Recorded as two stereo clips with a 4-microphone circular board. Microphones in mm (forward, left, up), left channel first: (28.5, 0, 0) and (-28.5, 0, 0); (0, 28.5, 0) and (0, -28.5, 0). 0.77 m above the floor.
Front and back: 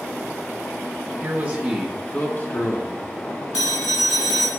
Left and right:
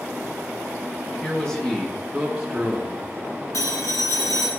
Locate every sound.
1.2 s a man speaking: 160° left, 1.3 m; by 3.4 s 10° right, 2 m
3.5 s a phone ringing: 100° left, 3 m